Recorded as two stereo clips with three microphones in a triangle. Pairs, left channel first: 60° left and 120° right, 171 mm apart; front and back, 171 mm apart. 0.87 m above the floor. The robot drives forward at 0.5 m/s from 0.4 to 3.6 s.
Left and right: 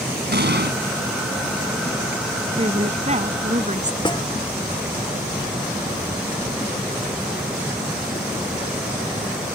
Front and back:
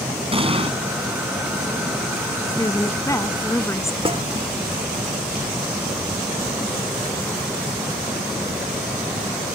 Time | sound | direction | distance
0.3 | an explosion | 125° right | ?
2.6 | a woman speaking | 70° right | ?
4.0 | a snare drum | 125° left | ?